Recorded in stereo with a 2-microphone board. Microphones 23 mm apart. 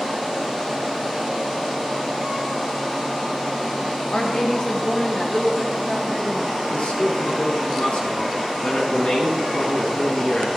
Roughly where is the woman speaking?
Left.